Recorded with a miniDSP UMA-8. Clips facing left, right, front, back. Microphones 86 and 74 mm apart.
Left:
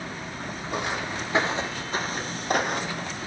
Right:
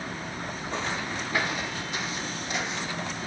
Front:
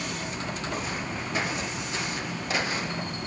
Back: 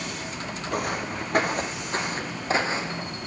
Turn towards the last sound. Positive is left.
turn(degrees=115)